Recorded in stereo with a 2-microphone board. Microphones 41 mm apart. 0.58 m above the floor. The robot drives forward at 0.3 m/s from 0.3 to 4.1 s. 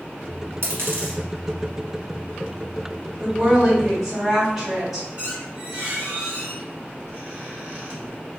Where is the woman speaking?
10° right (ahead or behind), 2 m; by 5.1 s 5° right (ahead or behind), 2.5 m.